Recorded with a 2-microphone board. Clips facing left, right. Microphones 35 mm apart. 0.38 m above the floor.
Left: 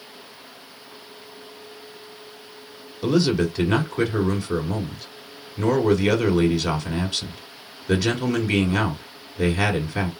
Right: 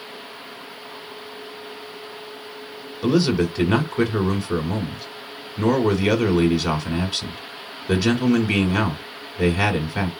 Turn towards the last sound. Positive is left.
turn(degrees=-5)  # may be behind; listen again after turning